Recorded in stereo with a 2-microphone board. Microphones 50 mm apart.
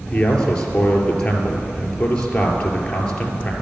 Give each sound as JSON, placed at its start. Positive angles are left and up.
{"t": 0.1, "sound": "a man speaking", "side_deg": 20, "distance_m": 3.0}